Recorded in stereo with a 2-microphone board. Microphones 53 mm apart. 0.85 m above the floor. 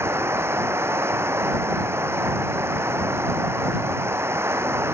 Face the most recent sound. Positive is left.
turn(degrees=-50)  # may be behind; listen again after turning